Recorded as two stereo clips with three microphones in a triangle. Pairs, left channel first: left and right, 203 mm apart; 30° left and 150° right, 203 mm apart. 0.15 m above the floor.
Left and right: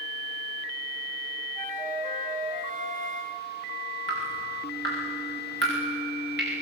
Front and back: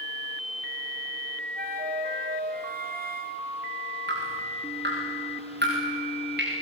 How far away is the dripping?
About 9.5 m.